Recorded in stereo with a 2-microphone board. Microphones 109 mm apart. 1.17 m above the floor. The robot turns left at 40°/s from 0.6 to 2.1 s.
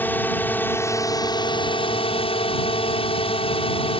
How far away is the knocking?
No knocking in this recording.